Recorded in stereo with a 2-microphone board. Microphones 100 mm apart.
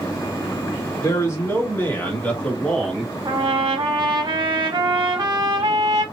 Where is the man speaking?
30° left (ahead or behind), 2.5 m; by 3.1 s centre (ahead or behind), 2 m.